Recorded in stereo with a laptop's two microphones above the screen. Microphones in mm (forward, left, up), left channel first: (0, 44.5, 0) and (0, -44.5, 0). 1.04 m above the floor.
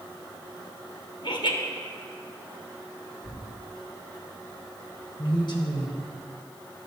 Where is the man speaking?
55° left (ahead or behind), 1.1 m.